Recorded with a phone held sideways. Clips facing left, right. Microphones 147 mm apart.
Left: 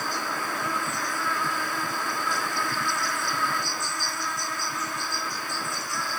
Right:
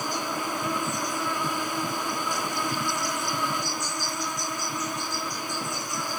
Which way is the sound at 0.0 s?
20° right (ahead or behind).